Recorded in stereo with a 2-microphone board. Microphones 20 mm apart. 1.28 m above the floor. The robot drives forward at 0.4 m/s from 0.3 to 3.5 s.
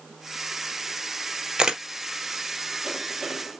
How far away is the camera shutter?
About 0.8 m.